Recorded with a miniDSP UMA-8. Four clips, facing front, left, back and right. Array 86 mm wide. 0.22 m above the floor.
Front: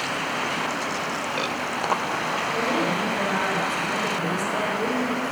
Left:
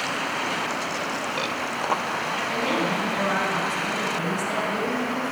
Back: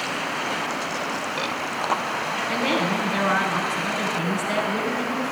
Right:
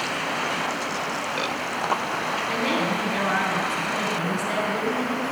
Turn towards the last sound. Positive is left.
turn(degrees=-155)